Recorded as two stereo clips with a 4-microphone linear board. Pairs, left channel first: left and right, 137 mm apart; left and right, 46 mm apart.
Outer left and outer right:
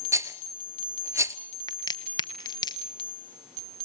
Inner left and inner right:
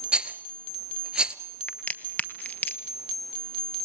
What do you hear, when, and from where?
0.1 s a rattle: 20° right (ahead or behind), 0.8 m
1.7 s a crack: 30° left (ahead or behind), 1.1 m